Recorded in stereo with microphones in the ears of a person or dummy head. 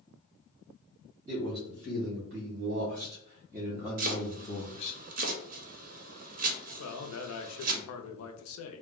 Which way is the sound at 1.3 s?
55° right (ahead or behind).